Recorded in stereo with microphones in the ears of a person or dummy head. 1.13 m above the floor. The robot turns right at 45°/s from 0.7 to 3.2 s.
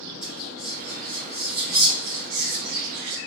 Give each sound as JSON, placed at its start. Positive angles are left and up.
{"t": 0.2, "sound": "whispering", "side_deg": -5, "distance_m": 1.8}